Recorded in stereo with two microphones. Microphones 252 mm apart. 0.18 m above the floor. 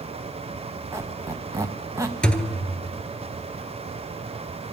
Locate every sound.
0.9 s a squeak: 10° right (ahead or behind), 0.8 m
2.2 s a thud: 5° left (ahead or behind), 0.6 m